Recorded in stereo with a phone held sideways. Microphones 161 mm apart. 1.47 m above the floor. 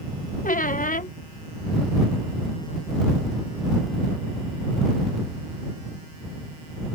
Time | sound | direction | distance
0.4 | a squeak | 55° left (ahead or behind) | ?